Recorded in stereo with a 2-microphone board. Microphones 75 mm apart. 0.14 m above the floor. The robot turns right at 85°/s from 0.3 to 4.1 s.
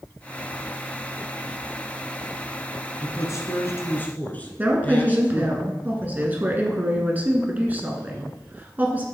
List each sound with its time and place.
3.0 s a man speaking: 55° left, 1.4 m; by 5.6 s 150° left, 1.4 m
4.6 s a woman speaking: 20° right (ahead or behind), 1.3 m